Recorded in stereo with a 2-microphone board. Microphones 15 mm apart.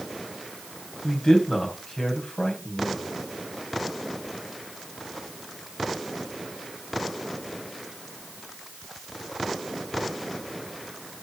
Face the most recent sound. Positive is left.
turn(degrees=70)  # may be behind; listen again after turning